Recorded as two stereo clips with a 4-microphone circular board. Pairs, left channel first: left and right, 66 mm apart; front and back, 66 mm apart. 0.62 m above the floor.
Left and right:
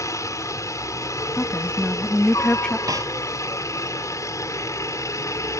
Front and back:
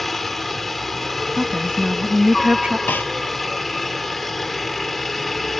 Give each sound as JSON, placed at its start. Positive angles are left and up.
{"t": 0.0, "sound": "a helicopter", "azimuth_deg": 90}
{"t": 1.4, "sound": "a woman speaking", "azimuth_deg": 140}
{"t": 2.9, "sound": "a snare drum", "azimuth_deg": -60}